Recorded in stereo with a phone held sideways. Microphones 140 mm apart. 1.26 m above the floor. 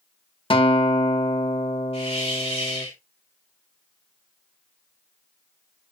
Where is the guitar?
40° left (ahead or behind), 1.1 m.